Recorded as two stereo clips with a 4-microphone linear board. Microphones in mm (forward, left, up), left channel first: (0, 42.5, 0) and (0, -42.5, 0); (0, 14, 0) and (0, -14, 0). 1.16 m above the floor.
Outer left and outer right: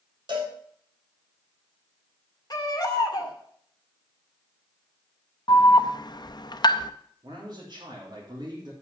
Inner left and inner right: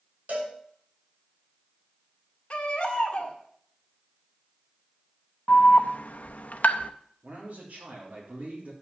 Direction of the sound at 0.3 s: 65° right (ahead or behind).